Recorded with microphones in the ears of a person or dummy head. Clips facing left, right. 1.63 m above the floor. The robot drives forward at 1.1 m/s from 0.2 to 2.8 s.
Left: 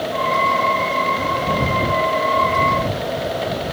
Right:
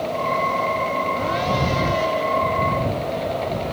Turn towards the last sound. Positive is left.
No sound to turn to.